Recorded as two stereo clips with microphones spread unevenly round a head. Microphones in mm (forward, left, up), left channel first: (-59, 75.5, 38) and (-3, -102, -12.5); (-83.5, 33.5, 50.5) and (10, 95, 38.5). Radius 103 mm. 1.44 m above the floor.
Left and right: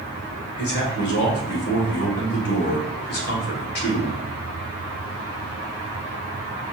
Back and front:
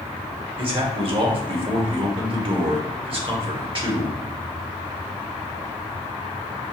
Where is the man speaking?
65° left, 1.3 m.